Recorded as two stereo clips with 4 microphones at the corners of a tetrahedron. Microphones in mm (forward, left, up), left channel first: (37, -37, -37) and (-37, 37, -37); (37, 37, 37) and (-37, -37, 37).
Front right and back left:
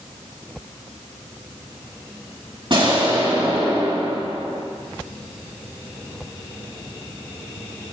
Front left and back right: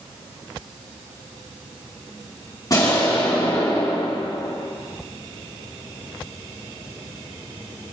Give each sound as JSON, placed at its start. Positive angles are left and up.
{"t": 2.7, "sound": "an explosion", "azimuth_deg": 100, "distance_m": 3.5}